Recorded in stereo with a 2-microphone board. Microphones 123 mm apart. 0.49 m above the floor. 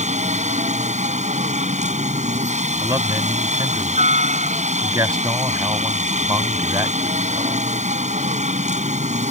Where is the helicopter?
70° right (ahead or behind).